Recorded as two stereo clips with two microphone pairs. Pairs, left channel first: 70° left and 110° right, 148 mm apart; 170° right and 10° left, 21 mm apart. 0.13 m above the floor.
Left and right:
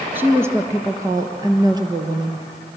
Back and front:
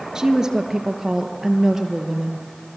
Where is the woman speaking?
35° right, 2 m; by 2.5 s 55° right, 3.5 m.